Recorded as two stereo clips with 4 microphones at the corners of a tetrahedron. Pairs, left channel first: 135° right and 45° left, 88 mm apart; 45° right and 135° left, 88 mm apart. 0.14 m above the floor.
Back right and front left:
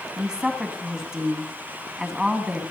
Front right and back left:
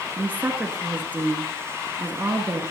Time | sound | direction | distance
0.2 | a woman speaking | 115° left | 1.7 m